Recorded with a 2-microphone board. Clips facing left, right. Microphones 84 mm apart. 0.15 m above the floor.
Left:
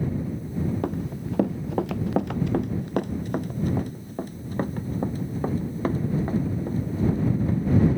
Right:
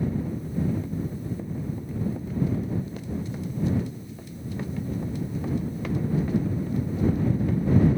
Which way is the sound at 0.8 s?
65° left (ahead or behind).